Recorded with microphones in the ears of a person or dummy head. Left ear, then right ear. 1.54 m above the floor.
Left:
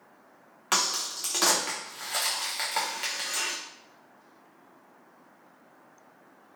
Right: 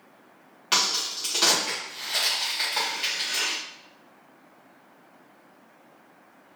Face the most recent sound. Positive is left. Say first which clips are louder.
# right 3 dB
turn(degrees=20)  # may be behind; listen again after turning